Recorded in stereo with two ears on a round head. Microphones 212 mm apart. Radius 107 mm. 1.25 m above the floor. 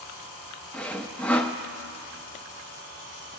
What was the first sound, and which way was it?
Sawing, 5° left (ahead or behind).